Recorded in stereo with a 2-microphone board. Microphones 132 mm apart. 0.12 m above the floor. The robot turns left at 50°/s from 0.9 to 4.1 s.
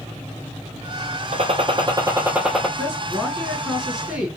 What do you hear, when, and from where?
1.3 s a gunshot: 120° right, 0.6 m; by 2.7 s 175° left, 0.6 m
2.8 s a woman speaking: 20° left (ahead or behind), 1.2 m; by 4.3 s 10° right (ahead or behind), 1.2 m